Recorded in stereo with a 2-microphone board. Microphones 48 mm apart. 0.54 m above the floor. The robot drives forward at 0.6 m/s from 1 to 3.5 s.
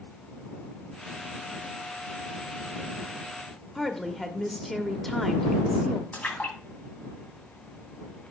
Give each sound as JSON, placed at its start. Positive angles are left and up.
{"t": 3.8, "sound": "a woman speaking", "side_deg": 5, "distance_m": 0.8}
{"t": 6.1, "sound": "a splash", "side_deg": 35, "distance_m": 2.5}